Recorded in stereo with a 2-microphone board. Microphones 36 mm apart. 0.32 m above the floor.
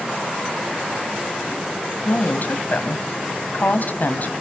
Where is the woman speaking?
55° left (ahead or behind), 1.9 m.